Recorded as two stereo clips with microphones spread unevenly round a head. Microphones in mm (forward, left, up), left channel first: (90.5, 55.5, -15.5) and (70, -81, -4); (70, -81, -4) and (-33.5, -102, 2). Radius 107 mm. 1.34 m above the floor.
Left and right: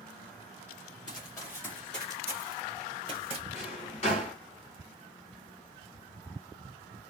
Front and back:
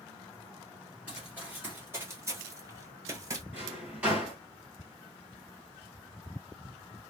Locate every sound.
1.1 s running footsteps: 125° left, 1.5 m; by 3.4 s 125° right, 1.8 m
3.5 s a drawer: 120° left, 1.3 m